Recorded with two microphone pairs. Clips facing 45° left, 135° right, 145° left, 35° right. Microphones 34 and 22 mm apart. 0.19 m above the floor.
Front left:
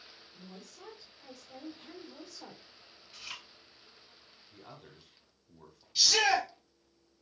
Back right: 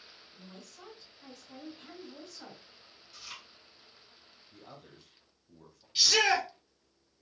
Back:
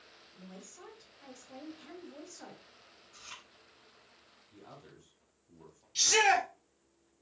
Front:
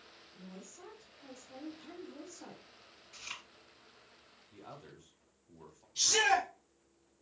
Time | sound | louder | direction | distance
0.3 | a woman speaking | front left 1 dB, even | 175° right | 2.5 m
3.1 | chewing | front left 2 dB, front 4 dB | straight ahead | 2.5 m
4.5 | a man speaking | even, front 2 dB | 10° left | 1.0 m
6.0 | a shout | back right 1 dB, back 3 dB | 175° left | 2 m